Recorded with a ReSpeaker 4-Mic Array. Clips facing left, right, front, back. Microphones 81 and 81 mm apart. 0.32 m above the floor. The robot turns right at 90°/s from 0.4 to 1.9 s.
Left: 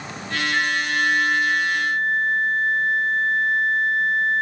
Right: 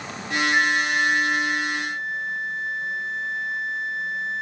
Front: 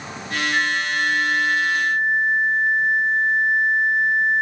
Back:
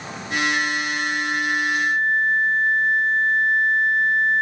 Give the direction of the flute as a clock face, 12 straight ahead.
1 o'clock.